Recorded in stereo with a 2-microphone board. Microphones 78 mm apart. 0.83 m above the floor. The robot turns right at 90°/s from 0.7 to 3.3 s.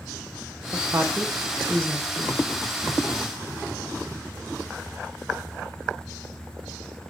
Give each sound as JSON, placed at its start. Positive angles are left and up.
{"t": 0.7, "sound": "a woman speaking", "side_deg": -40, "distance_m": 0.8}